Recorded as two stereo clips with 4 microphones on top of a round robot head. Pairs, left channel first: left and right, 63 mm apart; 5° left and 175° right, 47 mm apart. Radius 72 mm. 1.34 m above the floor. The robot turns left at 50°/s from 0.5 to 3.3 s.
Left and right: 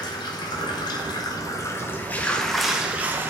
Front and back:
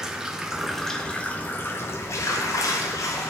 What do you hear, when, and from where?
0.0 s running water: 105° left, 0.9 m; by 3.3 s 35° right, 0.9 m